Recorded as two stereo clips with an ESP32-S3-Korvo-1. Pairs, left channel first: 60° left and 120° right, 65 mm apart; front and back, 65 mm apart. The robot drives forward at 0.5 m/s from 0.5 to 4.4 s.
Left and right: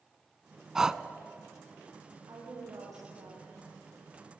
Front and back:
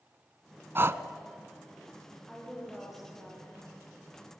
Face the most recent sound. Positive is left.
turn(degrees=-100)